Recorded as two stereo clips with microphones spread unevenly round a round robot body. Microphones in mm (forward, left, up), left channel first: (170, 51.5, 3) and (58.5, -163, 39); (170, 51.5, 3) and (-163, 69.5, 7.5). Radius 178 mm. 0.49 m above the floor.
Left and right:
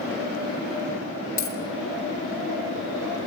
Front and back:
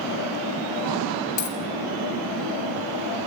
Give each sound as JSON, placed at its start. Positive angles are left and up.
{"t": 1.4, "sound": "a dropped coin", "azimuth_deg": 30, "distance_m": 3.5}